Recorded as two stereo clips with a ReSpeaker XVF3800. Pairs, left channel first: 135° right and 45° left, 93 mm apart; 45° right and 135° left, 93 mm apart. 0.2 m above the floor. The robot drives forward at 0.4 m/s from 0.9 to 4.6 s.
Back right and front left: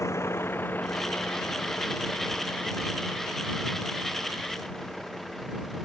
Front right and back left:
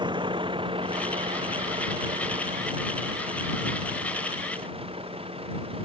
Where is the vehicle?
170° left; by 5.9 s 135° left.